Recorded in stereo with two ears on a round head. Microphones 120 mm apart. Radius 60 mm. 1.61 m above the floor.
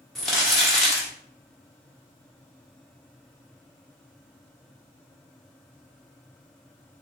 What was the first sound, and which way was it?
Crumpling, 5° left (ahead or behind).